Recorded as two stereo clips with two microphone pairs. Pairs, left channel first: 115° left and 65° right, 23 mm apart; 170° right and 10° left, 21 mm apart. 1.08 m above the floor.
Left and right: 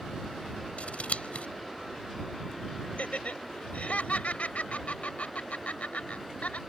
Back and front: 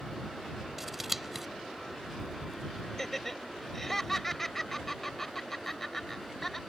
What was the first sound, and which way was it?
Scissors, 95° left.